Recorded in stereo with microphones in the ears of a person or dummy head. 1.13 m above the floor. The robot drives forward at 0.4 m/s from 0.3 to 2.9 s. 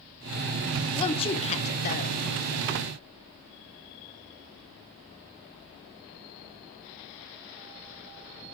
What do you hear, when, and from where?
0.9 s a woman speaking: 30° left (ahead or behind), 1.0 m; by 2.2 s 45° left (ahead or behind), 0.7 m